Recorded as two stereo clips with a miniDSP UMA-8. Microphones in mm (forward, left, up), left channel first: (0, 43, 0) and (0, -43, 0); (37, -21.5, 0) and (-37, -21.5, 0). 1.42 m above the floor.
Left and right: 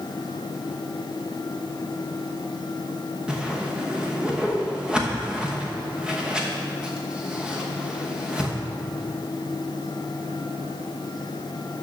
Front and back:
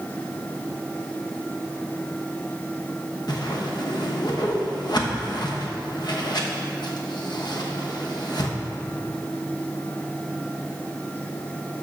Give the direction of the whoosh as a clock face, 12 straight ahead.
12 o'clock.